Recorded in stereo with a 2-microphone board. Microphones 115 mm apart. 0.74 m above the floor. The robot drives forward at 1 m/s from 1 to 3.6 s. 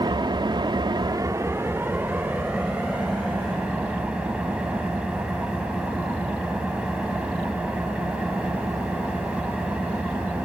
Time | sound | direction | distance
0.0 | an engine running | 40° right (ahead or behind) | 0.7 m